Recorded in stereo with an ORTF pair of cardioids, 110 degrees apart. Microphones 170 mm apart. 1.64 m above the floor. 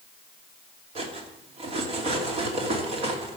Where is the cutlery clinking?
40° right, 2.5 m.